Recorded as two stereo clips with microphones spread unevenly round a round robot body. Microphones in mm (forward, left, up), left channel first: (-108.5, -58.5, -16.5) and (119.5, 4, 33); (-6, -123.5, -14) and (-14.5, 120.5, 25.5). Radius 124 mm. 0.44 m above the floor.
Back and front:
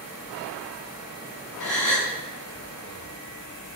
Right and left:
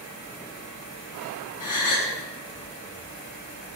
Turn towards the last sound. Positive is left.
turn(degrees=-85)